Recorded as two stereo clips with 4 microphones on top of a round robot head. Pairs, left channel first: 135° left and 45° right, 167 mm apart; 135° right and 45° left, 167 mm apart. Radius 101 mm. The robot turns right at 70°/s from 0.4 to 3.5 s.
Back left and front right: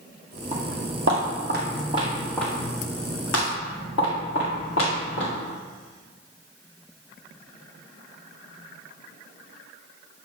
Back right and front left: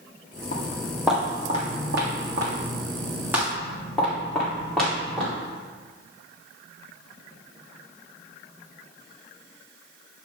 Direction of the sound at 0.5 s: 90° right.